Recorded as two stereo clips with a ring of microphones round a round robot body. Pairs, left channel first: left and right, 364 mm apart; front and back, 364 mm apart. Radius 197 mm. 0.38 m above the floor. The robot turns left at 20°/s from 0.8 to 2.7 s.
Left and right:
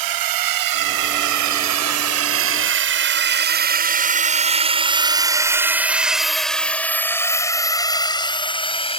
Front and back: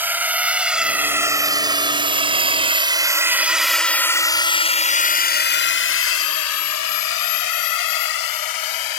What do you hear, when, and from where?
0.0 s a drone: 95° right; by 9.0 s 15° left